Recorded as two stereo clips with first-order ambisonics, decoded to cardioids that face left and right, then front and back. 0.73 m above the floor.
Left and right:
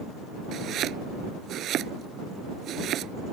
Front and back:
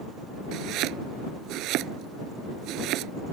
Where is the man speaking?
I don't hear a man speaking.